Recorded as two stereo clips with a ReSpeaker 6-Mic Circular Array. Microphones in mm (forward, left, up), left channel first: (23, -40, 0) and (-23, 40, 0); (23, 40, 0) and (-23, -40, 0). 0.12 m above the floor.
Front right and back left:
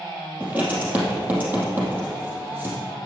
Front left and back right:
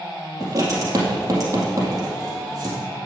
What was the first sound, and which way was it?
Writing, 170° right.